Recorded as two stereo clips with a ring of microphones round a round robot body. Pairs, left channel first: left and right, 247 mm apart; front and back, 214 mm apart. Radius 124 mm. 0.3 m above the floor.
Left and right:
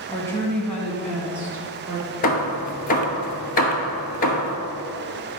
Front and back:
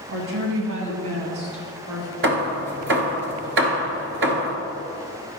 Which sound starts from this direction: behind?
A woman speaking, at 0.1 s.